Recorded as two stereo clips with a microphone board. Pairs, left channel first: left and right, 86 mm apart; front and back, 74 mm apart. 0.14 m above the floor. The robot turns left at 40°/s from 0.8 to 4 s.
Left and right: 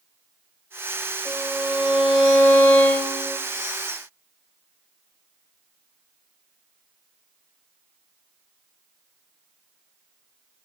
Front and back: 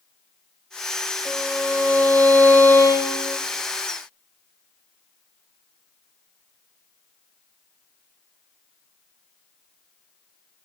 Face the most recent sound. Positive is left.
turn(degrees=100)